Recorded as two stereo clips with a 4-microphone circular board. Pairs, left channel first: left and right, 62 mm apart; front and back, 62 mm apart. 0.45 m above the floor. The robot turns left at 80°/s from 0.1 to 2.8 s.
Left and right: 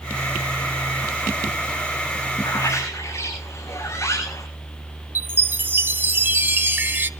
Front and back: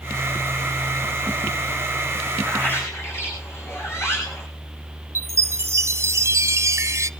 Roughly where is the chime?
Behind right.